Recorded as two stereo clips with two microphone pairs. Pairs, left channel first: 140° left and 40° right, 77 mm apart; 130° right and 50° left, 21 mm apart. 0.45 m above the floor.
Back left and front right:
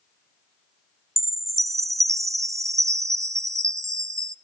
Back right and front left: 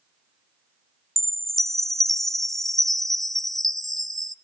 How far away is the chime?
About 0.6 m.